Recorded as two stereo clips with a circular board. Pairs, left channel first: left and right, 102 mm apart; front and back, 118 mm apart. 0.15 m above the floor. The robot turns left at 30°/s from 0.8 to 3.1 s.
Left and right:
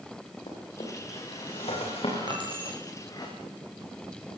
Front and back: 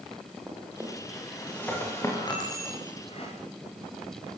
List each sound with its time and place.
0.5 s a drawer: 100° left, 9.5 m; by 3.3 s 35° left, 9.5 m
2.3 s keys jangling: 50° right, 6.5 m; by 2.8 s 65° right, 6.5 m